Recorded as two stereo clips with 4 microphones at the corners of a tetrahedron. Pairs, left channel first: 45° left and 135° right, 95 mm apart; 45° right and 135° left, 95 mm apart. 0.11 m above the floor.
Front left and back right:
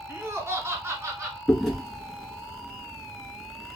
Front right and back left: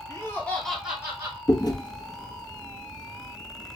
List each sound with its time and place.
0.1 s laughter: 80° right, 1.5 m; by 1.4 s 170° left, 1.4 m
1.5 s chewing: 40° right, 1.0 m